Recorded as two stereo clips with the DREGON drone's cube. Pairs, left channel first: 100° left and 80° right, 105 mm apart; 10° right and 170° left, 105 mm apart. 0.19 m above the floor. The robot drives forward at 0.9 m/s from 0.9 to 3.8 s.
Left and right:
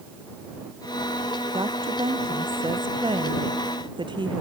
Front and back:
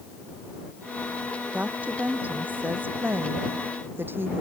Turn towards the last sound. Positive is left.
turn(degrees=-120)